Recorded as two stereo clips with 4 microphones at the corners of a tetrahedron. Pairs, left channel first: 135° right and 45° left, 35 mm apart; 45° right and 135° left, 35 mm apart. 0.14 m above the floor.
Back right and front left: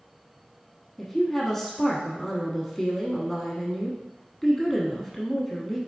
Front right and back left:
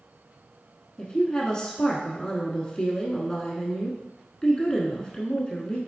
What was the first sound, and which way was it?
A woman speaking, 60° right.